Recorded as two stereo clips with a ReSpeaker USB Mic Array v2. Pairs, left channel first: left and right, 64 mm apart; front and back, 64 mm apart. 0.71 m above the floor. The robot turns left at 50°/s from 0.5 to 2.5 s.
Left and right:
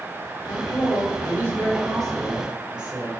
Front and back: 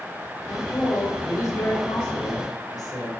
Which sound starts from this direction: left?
A woman speaking, at 0.5 s.